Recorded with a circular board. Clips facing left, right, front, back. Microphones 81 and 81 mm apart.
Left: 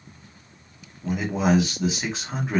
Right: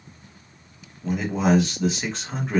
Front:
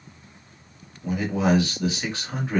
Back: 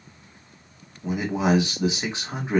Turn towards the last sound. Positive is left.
turn(degrees=170)